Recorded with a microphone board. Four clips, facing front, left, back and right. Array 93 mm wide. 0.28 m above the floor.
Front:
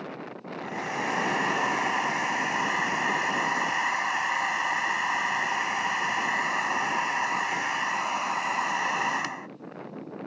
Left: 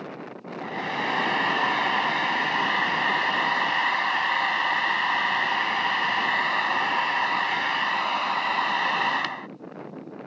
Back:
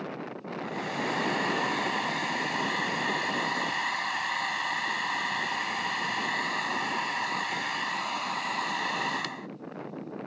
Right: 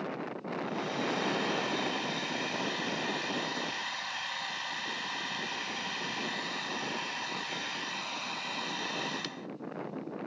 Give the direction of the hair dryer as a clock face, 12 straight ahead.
10 o'clock.